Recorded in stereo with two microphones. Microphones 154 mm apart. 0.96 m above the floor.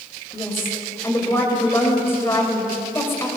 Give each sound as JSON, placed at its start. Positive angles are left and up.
{"t": 0.3, "sound": "a woman speaking", "side_deg": 15, "distance_m": 4.0}